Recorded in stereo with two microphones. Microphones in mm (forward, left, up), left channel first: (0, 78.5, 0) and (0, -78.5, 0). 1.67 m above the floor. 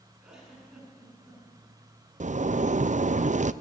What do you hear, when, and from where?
0.2 s a giggle: 5° right (ahead or behind), 8 m
2.2 s a zipper: 50° right (ahead or behind), 0.5 m